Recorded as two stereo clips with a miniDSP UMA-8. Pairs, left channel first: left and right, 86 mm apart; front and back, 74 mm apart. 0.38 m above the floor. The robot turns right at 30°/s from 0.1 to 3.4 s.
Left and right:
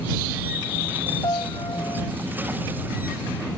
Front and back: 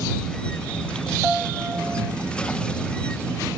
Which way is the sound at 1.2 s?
100° left.